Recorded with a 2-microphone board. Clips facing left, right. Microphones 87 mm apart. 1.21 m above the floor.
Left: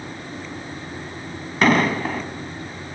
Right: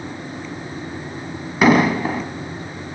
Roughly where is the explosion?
Centre.